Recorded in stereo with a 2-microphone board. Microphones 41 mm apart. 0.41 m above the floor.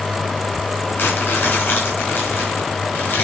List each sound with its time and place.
1.0 s crumpling: 55° left (ahead or behind), 5.5 m